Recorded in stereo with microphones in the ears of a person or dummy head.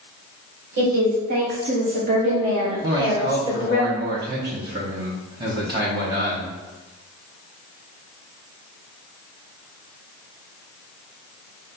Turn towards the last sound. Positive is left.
turn(degrees=-20)  # may be behind; listen again after turning